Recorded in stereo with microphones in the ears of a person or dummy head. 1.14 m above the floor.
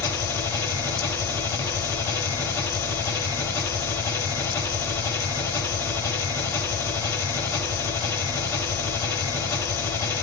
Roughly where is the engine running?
Left.